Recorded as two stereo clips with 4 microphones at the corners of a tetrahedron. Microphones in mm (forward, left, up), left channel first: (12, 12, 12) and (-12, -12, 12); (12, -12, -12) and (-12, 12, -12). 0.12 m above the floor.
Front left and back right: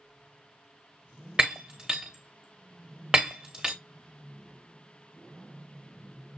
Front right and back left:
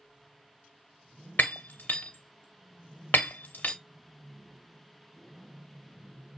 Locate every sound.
1.4 s breaking glass: 65° right, 1.3 m